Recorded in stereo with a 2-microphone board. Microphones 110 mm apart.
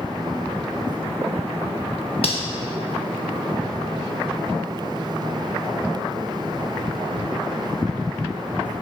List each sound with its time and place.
2.2 s cutlery clinking: 65° left (ahead or behind), 0.8 m